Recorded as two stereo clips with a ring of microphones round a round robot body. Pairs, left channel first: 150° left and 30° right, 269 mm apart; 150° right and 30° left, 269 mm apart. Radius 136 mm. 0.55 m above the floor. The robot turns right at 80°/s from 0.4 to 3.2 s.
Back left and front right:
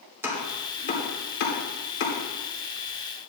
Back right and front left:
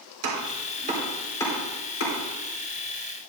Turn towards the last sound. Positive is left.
turn(degrees=-85)